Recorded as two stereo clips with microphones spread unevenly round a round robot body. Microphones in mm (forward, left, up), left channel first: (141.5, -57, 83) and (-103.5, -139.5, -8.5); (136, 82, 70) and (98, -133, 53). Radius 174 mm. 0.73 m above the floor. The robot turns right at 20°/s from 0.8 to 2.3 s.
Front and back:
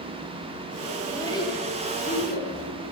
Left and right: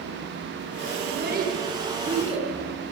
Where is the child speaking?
60° right, 9 m; by 2.5 s 35° right, 9 m.